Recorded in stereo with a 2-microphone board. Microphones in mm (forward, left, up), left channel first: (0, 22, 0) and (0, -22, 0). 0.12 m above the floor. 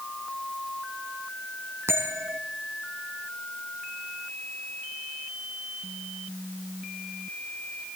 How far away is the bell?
About 2.5 m.